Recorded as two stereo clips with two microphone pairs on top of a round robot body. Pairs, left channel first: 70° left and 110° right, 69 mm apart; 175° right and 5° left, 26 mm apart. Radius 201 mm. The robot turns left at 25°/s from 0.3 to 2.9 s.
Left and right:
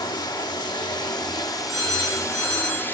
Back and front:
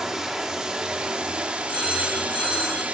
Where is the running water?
75° left, 1.0 m; by 2.9 s 10° left, 1.0 m.